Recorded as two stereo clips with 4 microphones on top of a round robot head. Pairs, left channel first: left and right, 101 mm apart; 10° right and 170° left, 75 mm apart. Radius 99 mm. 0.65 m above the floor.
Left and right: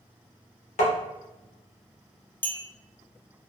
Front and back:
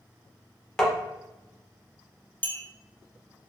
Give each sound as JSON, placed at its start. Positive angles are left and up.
{"t": 0.8, "sound": "tapping", "azimuth_deg": 75, "distance_m": 0.6}
{"t": 2.4, "sound": "a clink", "azimuth_deg": 35, "distance_m": 0.6}